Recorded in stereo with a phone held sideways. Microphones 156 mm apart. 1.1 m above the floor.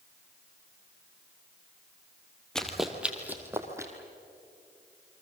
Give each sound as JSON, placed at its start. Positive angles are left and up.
{"t": 2.5, "sound": "running footsteps", "side_deg": 5, "distance_m": 2.0}